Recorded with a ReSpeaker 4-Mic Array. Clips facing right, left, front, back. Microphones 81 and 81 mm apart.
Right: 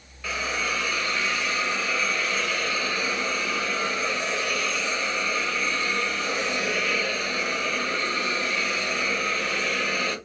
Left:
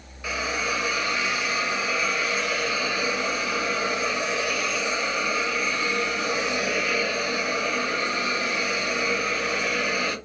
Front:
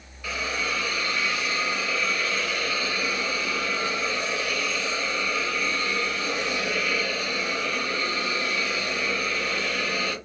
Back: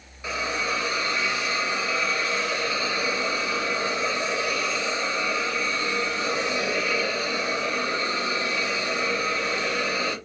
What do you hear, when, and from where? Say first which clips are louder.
0.2 s a hiss: left 1 dB, back 2 dB; 150° left, 0.7 m